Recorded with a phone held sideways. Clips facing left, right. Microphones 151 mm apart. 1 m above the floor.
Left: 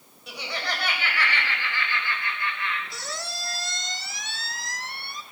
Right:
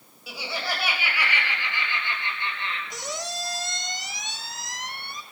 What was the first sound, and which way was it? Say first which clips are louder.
Laughter: right 1 dB; 5° right (ahead or behind).